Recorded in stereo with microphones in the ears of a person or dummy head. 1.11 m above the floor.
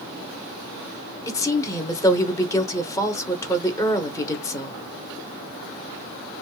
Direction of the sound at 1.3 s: 15° left (ahead or behind).